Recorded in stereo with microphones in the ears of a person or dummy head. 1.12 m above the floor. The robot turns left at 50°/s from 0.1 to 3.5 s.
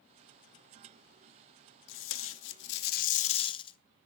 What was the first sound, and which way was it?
Tape being pulled, 110° left.